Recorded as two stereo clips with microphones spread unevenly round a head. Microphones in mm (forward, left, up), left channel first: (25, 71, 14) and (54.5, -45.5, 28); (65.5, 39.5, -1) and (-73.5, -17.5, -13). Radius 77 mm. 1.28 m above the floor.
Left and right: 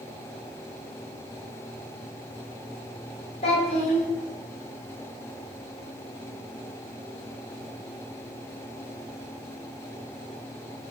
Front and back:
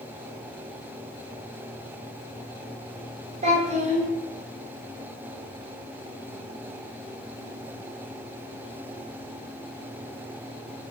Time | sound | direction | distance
3.4 | a child speaking | 155° left | 0.8 m